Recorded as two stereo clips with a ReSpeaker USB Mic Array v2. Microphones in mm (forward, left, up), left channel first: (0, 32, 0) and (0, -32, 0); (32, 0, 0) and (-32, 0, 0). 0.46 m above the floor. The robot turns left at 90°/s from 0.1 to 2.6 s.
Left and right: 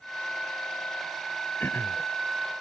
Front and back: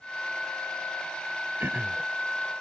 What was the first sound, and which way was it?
Throat clearing, 140° left.